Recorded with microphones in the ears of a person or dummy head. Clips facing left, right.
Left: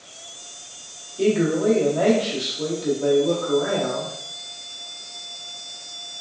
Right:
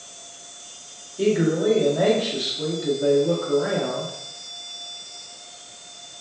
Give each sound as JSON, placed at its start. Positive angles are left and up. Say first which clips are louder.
{"t": 1.2, "sound": "a man speaking", "louder": "left 1 dB", "side_deg": -10, "distance_m": 0.8}